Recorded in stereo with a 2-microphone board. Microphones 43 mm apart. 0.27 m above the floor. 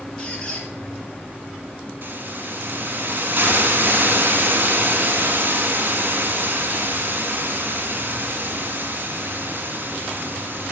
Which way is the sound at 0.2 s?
25° left (ahead or behind).